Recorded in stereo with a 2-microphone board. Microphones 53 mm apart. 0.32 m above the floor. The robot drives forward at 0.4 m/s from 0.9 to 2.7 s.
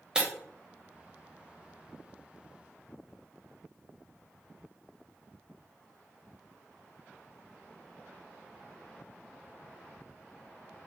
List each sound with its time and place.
0.1 s breaking glass: 15° right (ahead or behind), 0.6 m